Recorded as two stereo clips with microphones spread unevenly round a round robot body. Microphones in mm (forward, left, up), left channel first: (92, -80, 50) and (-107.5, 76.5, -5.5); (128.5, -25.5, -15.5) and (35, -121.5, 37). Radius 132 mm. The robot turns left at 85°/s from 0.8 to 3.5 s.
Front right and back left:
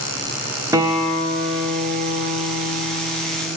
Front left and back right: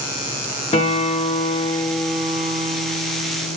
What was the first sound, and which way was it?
A guitar, 70° left.